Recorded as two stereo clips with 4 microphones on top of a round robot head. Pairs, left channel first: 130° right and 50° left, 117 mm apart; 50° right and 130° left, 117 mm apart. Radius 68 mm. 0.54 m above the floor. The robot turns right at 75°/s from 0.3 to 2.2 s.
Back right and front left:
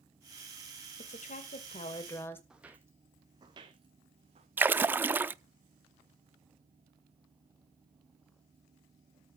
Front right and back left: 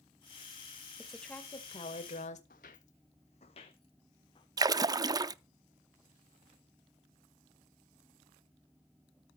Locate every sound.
1.0 s a woman speaking: 150° right, 2.5 m; by 2.4 s 60° right, 2.5 m
2.5 s footsteps: 35° right, 1.0 m; by 4.5 s 5° left, 1.9 m
4.6 s a splash: 110° left, 0.6 m